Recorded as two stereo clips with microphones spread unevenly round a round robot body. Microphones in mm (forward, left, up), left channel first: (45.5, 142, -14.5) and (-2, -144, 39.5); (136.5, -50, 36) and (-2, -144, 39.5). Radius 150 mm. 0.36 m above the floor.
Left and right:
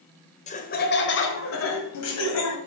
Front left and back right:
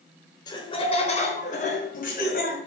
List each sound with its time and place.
0.5 s laughter: 75° left, 1.2 m; by 2.6 s 70° left, 2.5 m